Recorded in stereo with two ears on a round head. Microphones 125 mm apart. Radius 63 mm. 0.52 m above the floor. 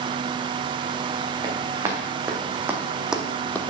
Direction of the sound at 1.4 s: 25° right (ahead or behind).